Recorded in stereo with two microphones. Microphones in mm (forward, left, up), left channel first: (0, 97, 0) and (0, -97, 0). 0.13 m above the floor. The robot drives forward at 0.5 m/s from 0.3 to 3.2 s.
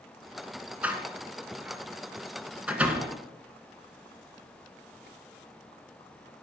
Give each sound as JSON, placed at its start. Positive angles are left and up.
{"t": 0.8, "sound": "a door slam", "side_deg": -10, "distance_m": 1.2}